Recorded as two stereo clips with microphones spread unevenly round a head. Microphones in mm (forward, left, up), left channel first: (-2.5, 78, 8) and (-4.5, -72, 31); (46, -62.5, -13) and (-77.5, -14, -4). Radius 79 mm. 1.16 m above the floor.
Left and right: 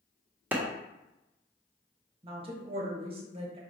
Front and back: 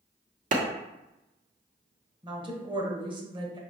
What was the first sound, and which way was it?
A clap, 170° right.